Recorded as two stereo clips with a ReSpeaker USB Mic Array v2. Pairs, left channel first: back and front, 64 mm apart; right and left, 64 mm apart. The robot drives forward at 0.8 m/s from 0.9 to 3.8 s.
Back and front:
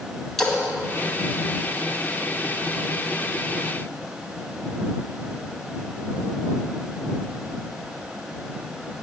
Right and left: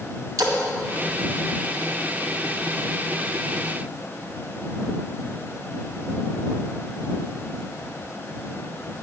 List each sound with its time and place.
0.4 s a splash: 95° left, 1.8 m